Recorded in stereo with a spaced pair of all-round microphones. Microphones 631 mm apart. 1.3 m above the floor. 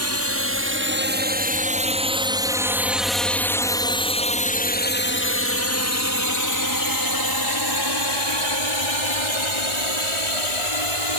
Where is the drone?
25° right (ahead or behind); by 11.2 s 55° left (ahead or behind).